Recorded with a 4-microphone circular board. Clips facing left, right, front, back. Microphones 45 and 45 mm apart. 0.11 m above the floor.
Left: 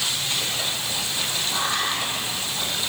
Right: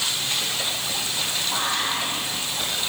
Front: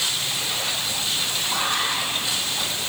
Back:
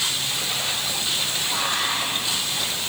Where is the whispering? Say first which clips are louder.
Even, front 1 dB; 50° right, 3.5 m.